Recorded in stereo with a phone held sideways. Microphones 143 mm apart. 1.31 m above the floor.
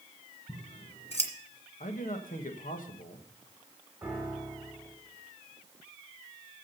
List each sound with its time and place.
0.5 s scissors: 50° left (ahead or behind), 1.9 m
1.8 s a man speaking: 75° left (ahead or behind), 1.3 m
4.0 s a piano: 10° right (ahead or behind), 4 m